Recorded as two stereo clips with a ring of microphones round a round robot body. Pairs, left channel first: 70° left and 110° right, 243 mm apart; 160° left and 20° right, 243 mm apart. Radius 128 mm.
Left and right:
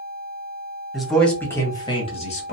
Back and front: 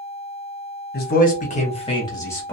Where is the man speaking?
160° left, 1.2 m; by 2.5 s 80° left, 1.1 m.